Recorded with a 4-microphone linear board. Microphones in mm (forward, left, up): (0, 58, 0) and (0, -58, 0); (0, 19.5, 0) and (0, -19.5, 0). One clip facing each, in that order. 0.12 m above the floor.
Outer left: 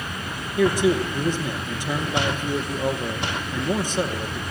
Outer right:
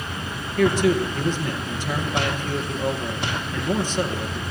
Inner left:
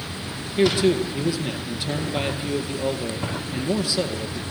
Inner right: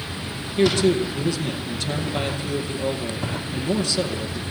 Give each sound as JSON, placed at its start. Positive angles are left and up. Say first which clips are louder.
{"t": 0.6, "sound": "a man speaking", "louder": "even, even", "side_deg": 15, "distance_m": 2.5}